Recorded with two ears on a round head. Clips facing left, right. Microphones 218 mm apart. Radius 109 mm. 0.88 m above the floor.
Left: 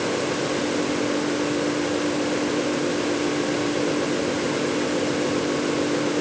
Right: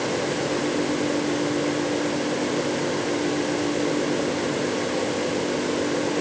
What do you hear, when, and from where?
Only background noise.